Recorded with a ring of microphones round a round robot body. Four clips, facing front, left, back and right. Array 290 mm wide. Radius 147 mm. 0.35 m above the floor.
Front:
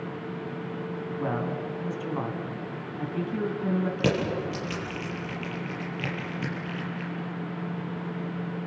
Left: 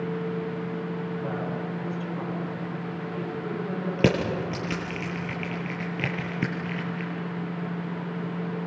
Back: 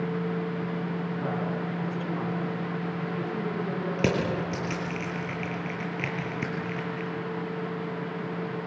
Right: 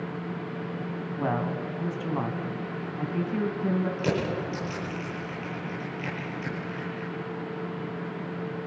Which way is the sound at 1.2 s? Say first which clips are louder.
Right 2 dB, front 3 dB; 80° right.